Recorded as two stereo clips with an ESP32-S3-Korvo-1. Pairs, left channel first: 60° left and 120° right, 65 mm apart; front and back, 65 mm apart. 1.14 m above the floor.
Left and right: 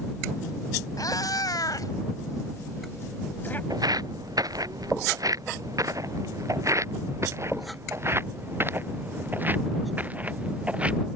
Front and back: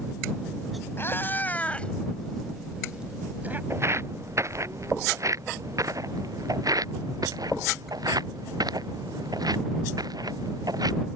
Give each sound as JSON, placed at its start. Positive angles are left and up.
{"t": 1.0, "sound": "a cat meowing", "azimuth_deg": 50}
{"t": 3.7, "sound": "footsteps", "azimuth_deg": -135}